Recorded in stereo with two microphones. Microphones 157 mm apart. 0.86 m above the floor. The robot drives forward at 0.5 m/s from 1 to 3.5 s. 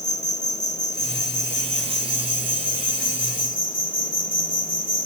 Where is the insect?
50° left (ahead or behind); by 5.1 s 65° left (ahead or behind).